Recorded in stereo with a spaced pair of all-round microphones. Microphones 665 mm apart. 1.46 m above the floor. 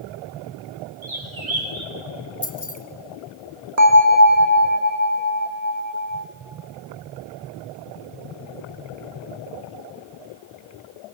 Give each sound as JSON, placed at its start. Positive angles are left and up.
{"t": 1.0, "sound": "a bird", "side_deg": -60, "distance_m": 2.5}
{"t": 2.4, "sound": "keys jangling", "side_deg": 40, "distance_m": 1.5}
{"t": 3.8, "sound": "a bell", "side_deg": -65, "distance_m": 1.8}